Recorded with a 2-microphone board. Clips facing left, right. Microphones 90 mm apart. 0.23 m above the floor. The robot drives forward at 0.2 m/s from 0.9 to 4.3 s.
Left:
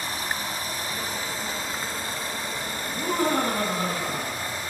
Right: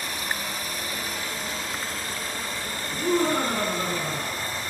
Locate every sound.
0.0 s running water: 30° left (ahead or behind), 0.9 m; by 4.7 s 15° left (ahead or behind), 1.5 m
2.9 s laughter: 50° left (ahead or behind), 2 m